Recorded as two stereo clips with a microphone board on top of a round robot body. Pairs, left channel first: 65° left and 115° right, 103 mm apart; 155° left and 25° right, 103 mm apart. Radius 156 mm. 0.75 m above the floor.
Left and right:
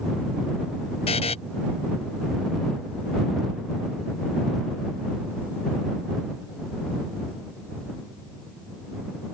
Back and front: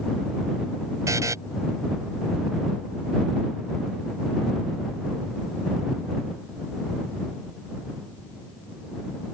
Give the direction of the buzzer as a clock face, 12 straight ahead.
11 o'clock.